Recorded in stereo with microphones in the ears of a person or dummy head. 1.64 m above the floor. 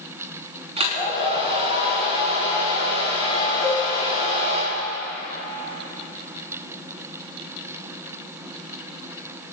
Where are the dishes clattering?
Centre (ahead or behind), 2.5 m.